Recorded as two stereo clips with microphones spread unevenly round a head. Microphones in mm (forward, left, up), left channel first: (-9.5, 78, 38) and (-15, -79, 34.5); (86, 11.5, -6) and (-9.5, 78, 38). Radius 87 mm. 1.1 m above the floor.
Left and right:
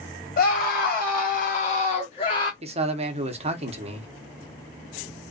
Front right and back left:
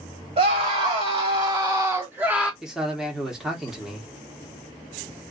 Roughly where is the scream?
Left.